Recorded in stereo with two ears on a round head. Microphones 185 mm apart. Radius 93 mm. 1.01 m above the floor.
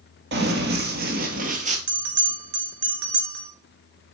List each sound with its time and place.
0.3 s running footsteps: 55° right (ahead or behind), 1.6 m; by 1.8 s 35° right (ahead or behind), 1.4 m
1.9 s a bell: 60° right (ahead or behind), 1.8 m